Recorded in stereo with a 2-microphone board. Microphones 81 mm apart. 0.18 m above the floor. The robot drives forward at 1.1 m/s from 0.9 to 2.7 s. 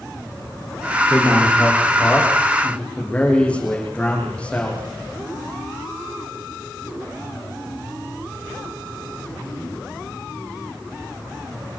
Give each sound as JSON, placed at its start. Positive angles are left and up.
{"t": 1.1, "sound": "a man speaking", "side_deg": 15, "distance_m": 9.0}